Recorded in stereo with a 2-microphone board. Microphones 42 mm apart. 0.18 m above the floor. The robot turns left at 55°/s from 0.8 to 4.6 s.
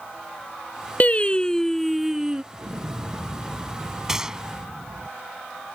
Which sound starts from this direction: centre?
A gunshot, at 4.1 s.